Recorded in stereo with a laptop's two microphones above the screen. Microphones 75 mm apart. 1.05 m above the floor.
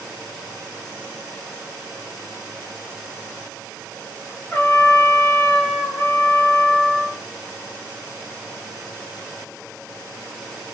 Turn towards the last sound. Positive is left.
turn(degrees=25)  # may be behind; listen again after turning